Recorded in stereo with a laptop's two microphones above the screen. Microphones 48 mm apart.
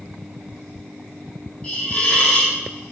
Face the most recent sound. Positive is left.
turn(degrees=20)  # may be behind; listen again after turning